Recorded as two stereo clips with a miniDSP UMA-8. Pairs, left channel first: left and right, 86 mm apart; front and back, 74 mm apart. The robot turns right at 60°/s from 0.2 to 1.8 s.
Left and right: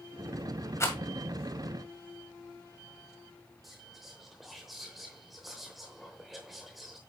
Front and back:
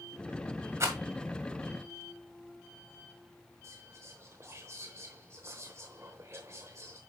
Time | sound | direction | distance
0.8 | a rattle | 135° left | 1.9 m
3.6 | whispering | straight behind | 0.9 m